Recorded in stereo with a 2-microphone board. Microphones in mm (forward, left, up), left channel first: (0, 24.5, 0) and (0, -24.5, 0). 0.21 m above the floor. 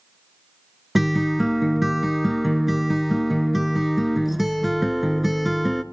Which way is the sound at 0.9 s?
5° right (ahead or behind).